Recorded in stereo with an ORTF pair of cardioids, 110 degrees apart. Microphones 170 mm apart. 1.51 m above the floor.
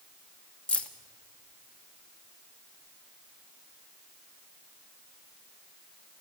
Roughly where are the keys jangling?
Ahead.